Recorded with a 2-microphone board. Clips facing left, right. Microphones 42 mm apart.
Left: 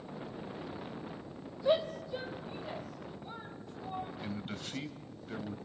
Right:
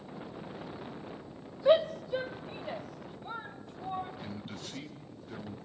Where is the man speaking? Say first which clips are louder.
Left 2 dB; 25° left (ahead or behind), 1.9 m.